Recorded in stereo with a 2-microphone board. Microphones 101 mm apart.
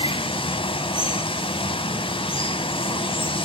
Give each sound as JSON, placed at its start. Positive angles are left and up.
{"t": 0.0, "sound": "running water", "side_deg": 60, "distance_m": 0.7}